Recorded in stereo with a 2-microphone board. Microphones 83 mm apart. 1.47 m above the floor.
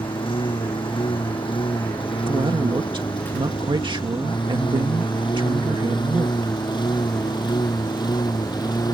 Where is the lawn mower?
85° left; by 8.9 s 55° left (ahead or behind).